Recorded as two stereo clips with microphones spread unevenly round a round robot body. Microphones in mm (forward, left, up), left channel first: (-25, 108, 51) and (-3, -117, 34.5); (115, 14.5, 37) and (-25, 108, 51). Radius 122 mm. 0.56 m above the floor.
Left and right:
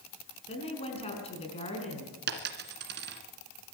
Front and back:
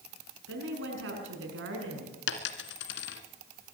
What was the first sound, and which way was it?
A woman speaking, 160° left.